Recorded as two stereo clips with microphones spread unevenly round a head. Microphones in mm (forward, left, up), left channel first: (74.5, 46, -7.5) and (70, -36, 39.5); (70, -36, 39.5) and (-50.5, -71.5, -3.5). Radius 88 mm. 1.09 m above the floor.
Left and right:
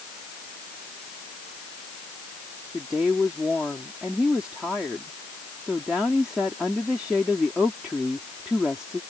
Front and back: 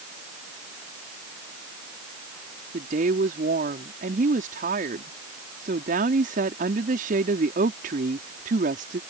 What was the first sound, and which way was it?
A woman speaking, straight behind.